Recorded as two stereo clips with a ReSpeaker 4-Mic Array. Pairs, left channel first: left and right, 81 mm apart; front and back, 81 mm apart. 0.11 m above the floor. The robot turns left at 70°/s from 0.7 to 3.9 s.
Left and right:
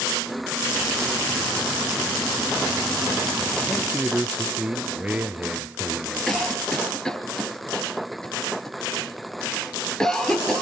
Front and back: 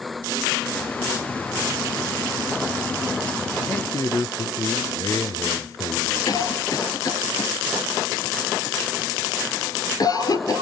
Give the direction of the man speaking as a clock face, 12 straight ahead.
12 o'clock.